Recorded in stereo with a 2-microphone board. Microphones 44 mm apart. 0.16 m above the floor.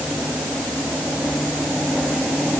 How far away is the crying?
No crying in this recording.